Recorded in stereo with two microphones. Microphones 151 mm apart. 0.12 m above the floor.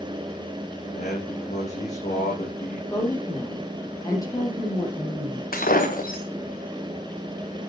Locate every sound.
0.9 s a man speaking: 50° left (ahead or behind), 6 m
2.9 s a woman speaking: 25° left (ahead or behind), 4.5 m
5.5 s breaking glass: 70° left (ahead or behind), 2 m